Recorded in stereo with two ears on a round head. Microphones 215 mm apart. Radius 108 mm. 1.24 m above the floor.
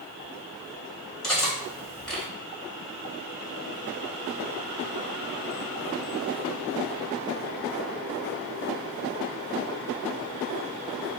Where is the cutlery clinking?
5° left (ahead or behind), 1.8 m.